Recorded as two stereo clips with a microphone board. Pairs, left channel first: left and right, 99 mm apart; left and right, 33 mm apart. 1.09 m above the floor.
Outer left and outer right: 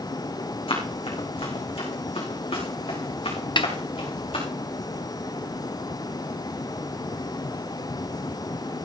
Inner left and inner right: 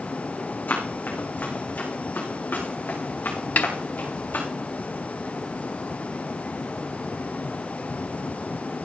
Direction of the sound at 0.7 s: 70° left (ahead or behind).